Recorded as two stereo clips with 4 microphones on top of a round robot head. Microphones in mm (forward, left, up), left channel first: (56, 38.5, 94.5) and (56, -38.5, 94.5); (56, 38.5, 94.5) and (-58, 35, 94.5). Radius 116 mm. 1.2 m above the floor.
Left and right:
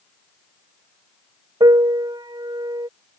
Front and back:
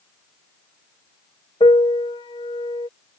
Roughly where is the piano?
Ahead right.